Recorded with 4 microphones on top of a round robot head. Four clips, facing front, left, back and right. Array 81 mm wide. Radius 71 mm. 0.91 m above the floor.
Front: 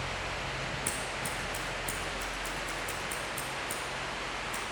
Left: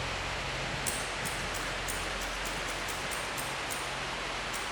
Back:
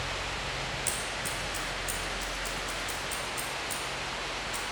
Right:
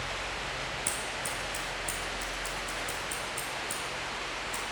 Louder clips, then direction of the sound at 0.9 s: Even, back 1 dB; 35° right.